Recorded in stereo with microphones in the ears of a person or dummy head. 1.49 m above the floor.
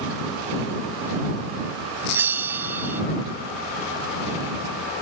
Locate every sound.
2.1 s a bell: 15° right (ahead or behind)